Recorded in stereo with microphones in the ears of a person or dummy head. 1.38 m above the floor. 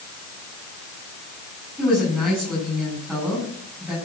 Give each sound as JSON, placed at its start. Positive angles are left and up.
{"t": 1.8, "sound": "a woman speaking", "side_deg": 0, "distance_m": 7.0}